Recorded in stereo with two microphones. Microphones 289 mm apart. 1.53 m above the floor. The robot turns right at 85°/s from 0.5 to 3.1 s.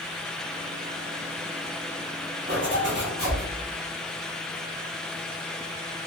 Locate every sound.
2.5 s a zipper: 115° right, 1.0 m; by 3.4 s 60° right, 1.0 m